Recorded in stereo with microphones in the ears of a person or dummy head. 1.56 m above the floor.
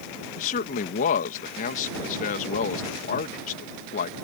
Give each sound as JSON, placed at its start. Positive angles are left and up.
{"t": 0.4, "sound": "a man speaking", "side_deg": 45}